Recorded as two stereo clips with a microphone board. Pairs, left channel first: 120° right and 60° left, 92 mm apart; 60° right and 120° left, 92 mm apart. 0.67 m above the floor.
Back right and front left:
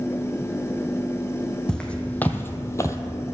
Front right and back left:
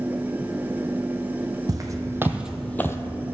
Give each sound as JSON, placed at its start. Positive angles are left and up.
{"t": 1.7, "sound": "footsteps", "azimuth_deg": 160, "distance_m": 1.3}